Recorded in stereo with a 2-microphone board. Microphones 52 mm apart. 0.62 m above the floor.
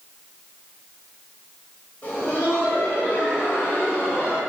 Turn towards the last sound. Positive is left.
turn(degrees=50)  # may be behind; listen again after turning